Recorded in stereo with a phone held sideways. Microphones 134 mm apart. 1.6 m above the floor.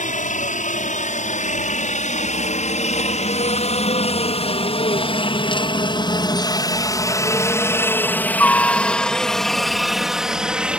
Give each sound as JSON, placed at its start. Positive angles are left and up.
{"t": 0.0, "sound": "a helicopter", "side_deg": 75}